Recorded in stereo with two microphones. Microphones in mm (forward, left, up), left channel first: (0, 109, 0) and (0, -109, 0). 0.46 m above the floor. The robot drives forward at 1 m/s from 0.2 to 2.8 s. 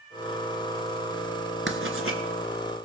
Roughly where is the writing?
Right.